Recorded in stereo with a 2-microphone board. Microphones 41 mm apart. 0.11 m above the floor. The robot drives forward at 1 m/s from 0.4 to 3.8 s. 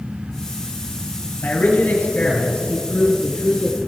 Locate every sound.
1.4 s a man speaking: 45° left (ahead or behind), 2.5 m; by 3.8 s 30° left (ahead or behind), 3 m